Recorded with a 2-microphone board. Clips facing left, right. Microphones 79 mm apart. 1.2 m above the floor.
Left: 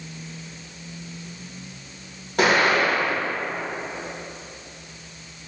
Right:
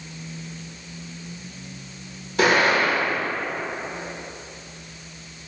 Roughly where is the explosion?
Left.